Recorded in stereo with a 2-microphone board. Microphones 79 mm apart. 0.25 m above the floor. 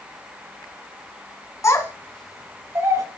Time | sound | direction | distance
1.6 | a child speaking | 40° left (ahead or behind) | 1.5 m